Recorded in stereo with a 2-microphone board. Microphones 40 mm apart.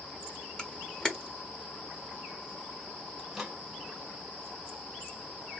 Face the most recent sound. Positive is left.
turn(degrees=-5)  # may be behind; listen again after turning